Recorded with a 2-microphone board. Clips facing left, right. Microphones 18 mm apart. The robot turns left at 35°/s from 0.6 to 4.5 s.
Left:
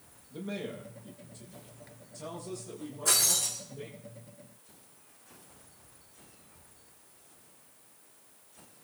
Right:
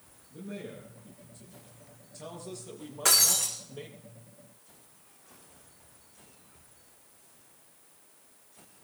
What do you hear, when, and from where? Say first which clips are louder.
0.3 s a man speaking: left 3 dB; 45° left, 8 m; by 4.0 s 75° right, 8 m
3.0 s breaking glass: right 3 dB; 70° right (ahead or behind), 7.5 m; by 3.5 s 55° right (ahead or behind), 7.5 m